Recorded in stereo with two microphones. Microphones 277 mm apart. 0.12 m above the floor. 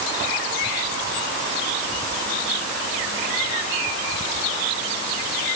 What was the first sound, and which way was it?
Only background noise.